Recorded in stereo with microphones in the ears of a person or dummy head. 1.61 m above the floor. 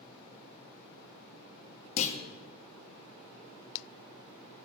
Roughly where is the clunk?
Left.